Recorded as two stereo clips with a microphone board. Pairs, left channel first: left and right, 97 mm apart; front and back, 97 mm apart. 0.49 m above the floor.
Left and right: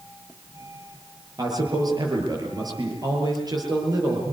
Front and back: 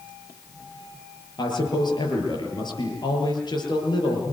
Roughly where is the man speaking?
Ahead right.